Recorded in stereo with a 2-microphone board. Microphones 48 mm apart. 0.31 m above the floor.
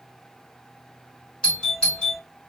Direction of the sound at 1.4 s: 20° left (ahead or behind).